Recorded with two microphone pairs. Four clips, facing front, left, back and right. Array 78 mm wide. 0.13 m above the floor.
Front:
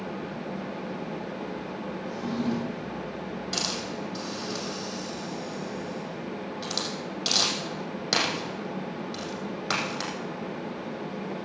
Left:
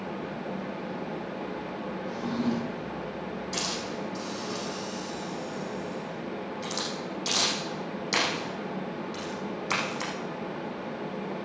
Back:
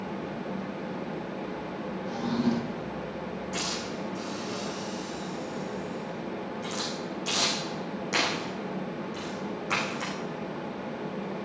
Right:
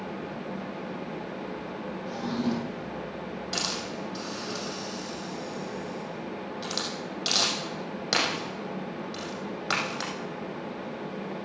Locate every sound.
2.1 s a drawer: 130° right, 2.5 m
3.5 s a hiss: 55° right, 6 m